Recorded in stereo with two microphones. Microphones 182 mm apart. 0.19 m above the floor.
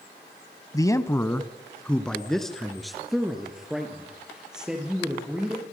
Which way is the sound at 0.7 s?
20° left (ahead or behind).